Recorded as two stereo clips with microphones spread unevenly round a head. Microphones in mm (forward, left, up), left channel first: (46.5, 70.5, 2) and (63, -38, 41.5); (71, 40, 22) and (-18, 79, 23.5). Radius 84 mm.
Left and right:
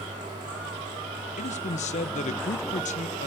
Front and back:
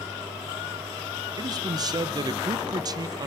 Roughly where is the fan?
Behind right.